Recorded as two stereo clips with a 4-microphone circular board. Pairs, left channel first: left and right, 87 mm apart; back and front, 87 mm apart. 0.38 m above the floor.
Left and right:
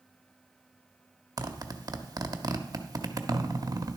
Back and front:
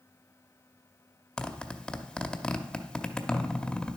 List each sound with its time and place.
1.4 s a zipper: 105° right, 0.6 m